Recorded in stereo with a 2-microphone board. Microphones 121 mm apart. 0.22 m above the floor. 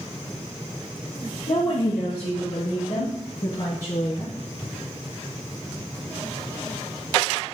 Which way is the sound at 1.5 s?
75° left (ahead or behind).